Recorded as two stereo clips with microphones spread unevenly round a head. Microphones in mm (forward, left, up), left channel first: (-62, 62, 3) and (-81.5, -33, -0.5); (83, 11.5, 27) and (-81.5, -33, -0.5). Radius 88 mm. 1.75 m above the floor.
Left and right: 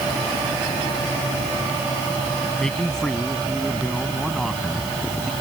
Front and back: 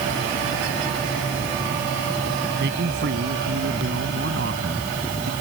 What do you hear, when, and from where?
2.6 s a man speaking: 160° left; by 5.3 s 165° left